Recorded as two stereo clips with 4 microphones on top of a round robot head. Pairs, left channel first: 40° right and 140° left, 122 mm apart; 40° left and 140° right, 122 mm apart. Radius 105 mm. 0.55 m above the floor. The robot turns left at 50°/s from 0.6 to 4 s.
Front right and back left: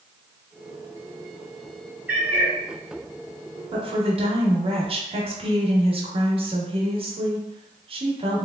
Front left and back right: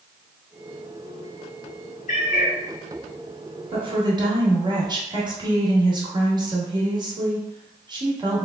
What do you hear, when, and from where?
2.1 s a cat meowing: 65° left, 1.4 m; by 2.5 s 40° left, 1.4 m
3.7 s a woman speaking: 175° right, 1.2 m; by 8.5 s 170° left, 1.2 m